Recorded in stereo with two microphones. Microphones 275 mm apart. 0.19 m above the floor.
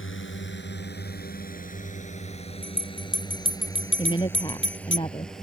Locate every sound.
0.0 s a drone: 45° left (ahead or behind); by 5.5 s centre (ahead or behind)
2.6 s a bell: 45° left (ahead or behind)
4.0 s a woman speaking: 15° left (ahead or behind)